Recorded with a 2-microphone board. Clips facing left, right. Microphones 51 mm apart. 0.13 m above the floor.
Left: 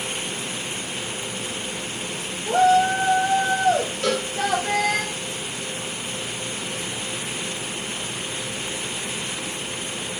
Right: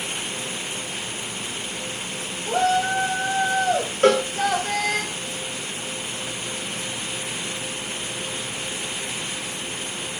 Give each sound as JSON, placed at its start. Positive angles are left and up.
{"t": 2.5, "sound": "a shout", "side_deg": 10, "distance_m": 4.5}
{"t": 4.0, "sound": "a cowbell", "side_deg": -40, "distance_m": 5.0}